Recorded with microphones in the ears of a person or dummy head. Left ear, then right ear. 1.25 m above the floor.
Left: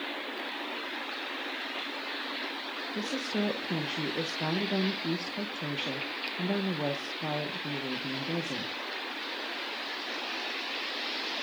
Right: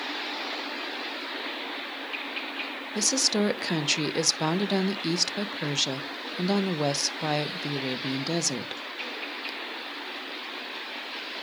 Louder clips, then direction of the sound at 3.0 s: Right 9 dB; 75° right (ahead or behind).